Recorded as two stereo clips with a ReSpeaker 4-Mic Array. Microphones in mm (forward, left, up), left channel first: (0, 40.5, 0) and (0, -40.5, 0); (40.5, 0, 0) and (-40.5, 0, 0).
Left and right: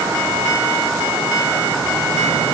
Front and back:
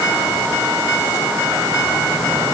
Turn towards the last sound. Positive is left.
No sound to turn to.